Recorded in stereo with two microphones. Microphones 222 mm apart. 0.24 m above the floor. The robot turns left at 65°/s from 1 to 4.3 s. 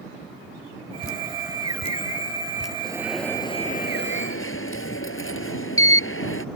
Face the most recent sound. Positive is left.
turn(degrees=105)